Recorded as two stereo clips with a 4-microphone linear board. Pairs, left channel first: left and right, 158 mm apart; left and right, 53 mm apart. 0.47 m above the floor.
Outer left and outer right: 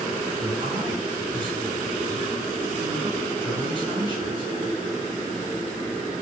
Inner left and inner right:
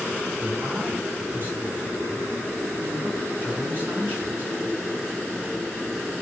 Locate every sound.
0.4 s a man speaking: 30° right (ahead or behind), 5 m